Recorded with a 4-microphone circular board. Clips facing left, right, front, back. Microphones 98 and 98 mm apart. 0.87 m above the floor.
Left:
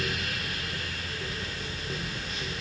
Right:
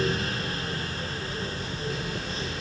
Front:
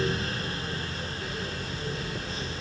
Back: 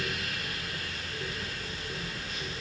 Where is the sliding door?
I don't hear a sliding door.